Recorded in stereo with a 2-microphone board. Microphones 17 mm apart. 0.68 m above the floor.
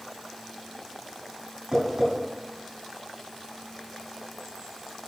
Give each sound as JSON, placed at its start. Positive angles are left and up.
{"t": 1.7, "sound": "tapping", "side_deg": -30, "distance_m": 4.0}